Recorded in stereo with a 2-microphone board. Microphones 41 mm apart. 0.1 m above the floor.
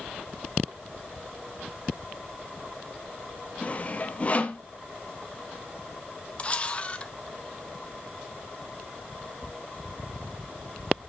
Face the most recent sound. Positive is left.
turn(degrees=30)  # may be behind; listen again after turning